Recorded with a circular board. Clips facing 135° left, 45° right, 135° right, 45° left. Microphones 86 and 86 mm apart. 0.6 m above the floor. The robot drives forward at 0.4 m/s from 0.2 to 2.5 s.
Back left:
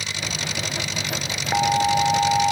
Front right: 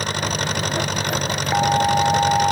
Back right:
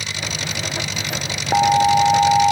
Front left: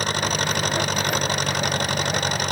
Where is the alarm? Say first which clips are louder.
Front right 1 dB, back right 11 dB; 130° right.